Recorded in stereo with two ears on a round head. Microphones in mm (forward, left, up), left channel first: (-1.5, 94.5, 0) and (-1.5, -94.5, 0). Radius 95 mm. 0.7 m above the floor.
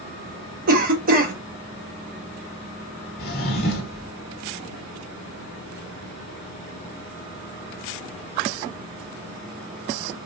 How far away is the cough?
About 0.7 m.